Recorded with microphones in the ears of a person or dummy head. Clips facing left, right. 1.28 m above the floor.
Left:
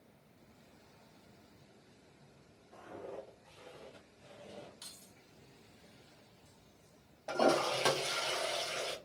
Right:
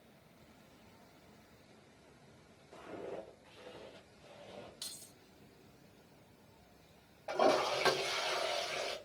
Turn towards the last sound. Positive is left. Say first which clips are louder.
# left 1 dB
turn(degrees=10)  # may be behind; listen again after turning